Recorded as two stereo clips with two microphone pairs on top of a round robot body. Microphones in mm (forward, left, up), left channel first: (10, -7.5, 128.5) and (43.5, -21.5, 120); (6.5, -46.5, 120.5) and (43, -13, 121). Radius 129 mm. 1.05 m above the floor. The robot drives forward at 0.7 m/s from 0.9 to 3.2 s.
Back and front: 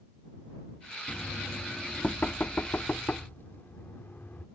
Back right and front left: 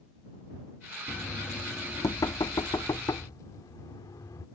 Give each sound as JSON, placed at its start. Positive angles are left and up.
{"t": 1.1, "sound": "knocking", "azimuth_deg": -130}